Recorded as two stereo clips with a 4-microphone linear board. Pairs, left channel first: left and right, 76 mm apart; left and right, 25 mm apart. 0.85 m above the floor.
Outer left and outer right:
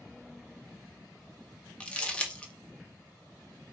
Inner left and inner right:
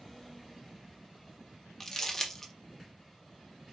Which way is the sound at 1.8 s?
20° left (ahead or behind).